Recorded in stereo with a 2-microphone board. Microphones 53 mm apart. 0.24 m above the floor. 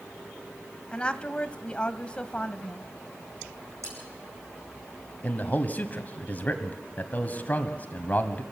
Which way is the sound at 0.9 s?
25° left (ahead or behind).